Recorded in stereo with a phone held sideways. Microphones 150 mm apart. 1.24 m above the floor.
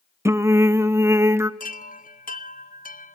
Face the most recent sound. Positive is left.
turn(degrees=70)  # may be behind; listen again after turning